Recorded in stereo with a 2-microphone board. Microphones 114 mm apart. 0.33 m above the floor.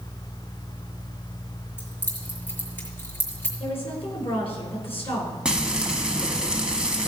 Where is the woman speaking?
55° left (ahead or behind), 4.5 m.